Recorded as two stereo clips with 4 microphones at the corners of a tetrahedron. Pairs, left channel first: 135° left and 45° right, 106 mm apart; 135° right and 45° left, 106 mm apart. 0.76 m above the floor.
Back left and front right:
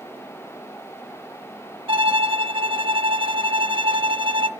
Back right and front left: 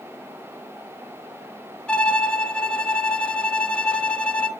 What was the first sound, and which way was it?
A violin, 55° right.